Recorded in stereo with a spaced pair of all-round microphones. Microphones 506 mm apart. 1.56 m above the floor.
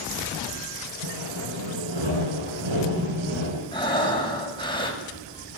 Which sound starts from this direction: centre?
Breathing, at 3.7 s.